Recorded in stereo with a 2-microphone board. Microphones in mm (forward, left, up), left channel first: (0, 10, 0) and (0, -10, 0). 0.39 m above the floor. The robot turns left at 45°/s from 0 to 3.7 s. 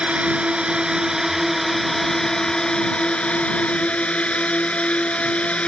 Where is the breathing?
I don't hear breathing.